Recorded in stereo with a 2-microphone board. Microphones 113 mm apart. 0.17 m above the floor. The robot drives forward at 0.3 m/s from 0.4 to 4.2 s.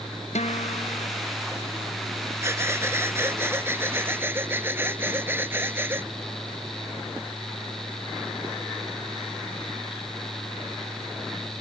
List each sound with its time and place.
0.3 s a guitar: 80° left
2.4 s breathing: 25° right (ahead or behind); by 6.1 s 20° right (ahead or behind)